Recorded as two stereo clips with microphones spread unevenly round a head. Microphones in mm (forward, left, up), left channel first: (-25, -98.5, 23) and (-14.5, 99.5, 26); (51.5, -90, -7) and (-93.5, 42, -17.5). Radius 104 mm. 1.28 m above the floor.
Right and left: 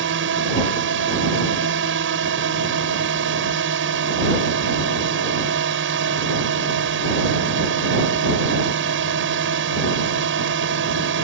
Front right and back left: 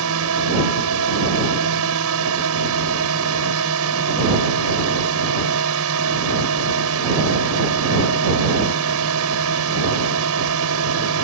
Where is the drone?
115° left.